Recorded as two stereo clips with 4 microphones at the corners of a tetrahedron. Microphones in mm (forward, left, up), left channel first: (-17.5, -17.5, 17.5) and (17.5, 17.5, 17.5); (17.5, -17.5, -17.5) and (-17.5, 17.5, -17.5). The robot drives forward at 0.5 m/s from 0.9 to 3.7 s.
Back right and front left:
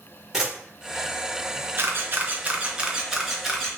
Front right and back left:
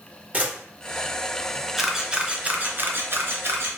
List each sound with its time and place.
0.3 s a camera shutter: 115° left, 1.2 m
1.8 s a camera shutter: 50° left, 0.7 m; by 3.8 s 145° left, 0.8 m